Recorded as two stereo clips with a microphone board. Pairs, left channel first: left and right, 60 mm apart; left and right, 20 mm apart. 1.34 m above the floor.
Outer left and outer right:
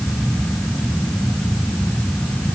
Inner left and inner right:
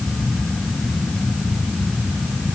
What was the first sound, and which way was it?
Only background noise.